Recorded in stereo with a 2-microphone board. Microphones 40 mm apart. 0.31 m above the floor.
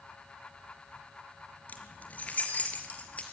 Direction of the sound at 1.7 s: 40° left (ahead or behind).